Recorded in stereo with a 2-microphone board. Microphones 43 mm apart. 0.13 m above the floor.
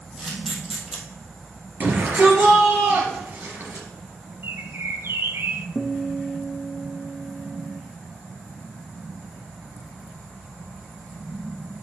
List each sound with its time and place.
0.2 s a camera shutter: 10° right (ahead or behind), 1.9 m
1.8 s a shout: 35° right (ahead or behind), 3 m
4.4 s a bird: 60° right (ahead or behind), 0.6 m
5.8 s a guitar: 55° left (ahead or behind), 0.9 m